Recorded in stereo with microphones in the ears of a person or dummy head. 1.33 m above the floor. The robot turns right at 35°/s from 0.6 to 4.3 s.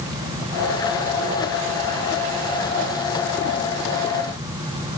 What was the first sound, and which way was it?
Only background noise.